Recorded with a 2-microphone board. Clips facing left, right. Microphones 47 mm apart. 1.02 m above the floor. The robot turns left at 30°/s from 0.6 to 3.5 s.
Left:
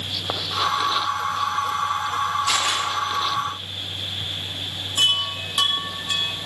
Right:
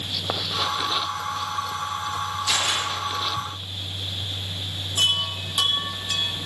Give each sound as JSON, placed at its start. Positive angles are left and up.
{"t": 2.5, "sound": "a camera shutter", "side_deg": 40, "distance_m": 9.0}
{"t": 5.0, "sound": "a chime", "side_deg": 25, "distance_m": 2.0}